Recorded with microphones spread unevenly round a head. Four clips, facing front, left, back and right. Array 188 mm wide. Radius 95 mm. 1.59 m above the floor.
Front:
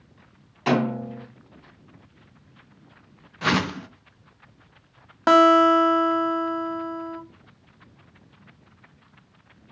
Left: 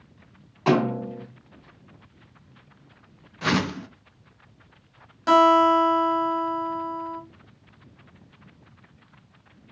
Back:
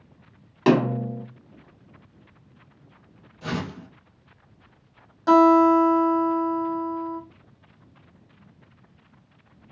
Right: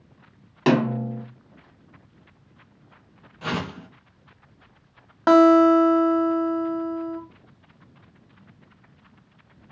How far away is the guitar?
About 1.1 m.